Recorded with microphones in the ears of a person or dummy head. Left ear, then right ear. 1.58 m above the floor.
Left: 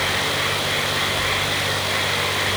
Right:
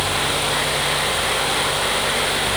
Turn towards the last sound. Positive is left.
No sound to turn to.